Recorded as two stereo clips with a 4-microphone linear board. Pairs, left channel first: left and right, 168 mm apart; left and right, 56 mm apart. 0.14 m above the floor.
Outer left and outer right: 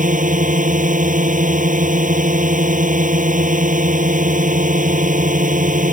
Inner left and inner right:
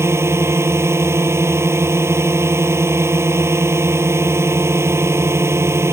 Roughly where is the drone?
Right.